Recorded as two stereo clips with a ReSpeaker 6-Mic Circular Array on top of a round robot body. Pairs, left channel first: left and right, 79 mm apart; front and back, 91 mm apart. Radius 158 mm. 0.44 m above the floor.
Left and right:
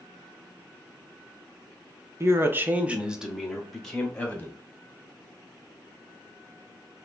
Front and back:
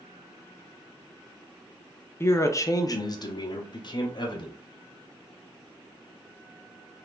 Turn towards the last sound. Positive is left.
turn(degrees=20)